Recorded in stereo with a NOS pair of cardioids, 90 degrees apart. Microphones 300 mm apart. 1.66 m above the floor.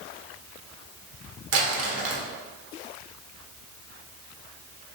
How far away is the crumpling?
About 1.0 m.